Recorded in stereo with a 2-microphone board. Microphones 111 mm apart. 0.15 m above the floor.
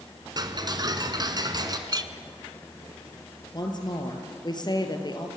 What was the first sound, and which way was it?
Ticking, 40° right (ahead or behind).